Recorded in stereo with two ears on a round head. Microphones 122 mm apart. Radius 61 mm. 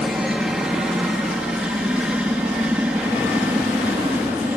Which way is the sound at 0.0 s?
5° right (ahead or behind).